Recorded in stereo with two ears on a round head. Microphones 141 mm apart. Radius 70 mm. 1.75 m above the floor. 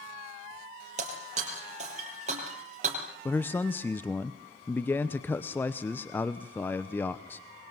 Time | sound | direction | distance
1.0 | breaking glass | 50° right (ahead or behind) | 5.5 m
3.2 | a man speaking | 15° left (ahead or behind) | 0.9 m